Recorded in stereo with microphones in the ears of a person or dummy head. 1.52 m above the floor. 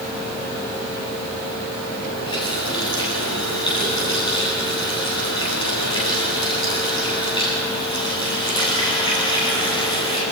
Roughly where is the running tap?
Left.